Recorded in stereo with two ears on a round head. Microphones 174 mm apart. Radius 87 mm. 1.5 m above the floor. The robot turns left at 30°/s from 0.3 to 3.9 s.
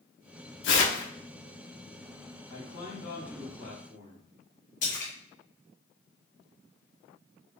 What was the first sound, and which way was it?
Tearing paper, 65° left (ahead or behind).